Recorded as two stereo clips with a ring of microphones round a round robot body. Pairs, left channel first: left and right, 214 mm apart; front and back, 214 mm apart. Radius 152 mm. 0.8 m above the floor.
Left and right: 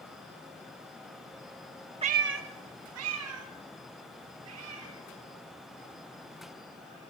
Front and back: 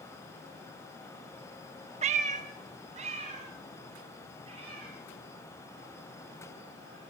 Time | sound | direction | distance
2.0 | a cat meowing | 140° right | 0.6 m